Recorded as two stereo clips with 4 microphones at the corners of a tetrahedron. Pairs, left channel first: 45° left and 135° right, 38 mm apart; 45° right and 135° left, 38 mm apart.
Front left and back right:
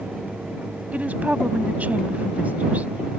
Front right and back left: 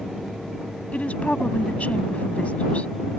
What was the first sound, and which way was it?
A woman speaking, 90° right.